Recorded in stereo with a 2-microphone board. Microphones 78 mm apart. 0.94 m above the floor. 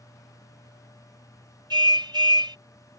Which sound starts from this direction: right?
A car horn, at 1.7 s.